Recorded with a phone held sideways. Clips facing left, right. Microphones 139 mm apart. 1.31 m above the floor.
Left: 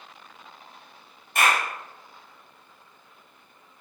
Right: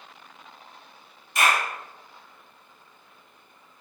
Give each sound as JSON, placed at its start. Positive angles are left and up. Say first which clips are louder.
{"t": 1.4, "sound": "a clap", "louder": "even", "side_deg": 55, "distance_m": 2.0}